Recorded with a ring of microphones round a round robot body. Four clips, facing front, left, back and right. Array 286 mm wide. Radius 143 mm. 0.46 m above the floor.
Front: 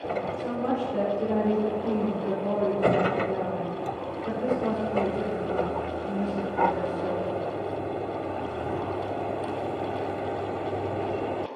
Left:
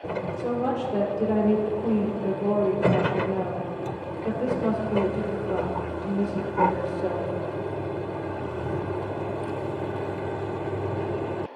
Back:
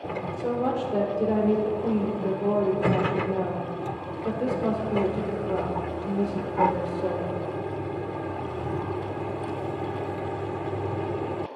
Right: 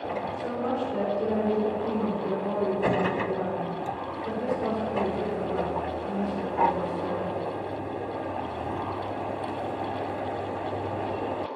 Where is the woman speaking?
140° left, 1.8 m.